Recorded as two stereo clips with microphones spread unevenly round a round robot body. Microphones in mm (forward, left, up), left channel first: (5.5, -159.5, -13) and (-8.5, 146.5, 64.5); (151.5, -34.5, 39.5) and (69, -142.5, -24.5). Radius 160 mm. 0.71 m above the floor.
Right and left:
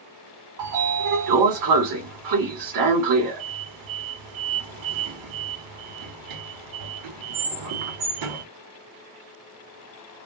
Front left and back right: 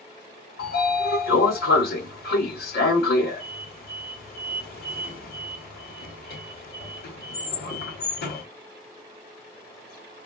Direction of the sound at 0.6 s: 60° left.